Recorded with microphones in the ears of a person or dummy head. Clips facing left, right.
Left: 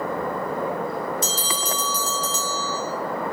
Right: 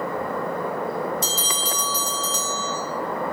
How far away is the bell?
About 0.6 m.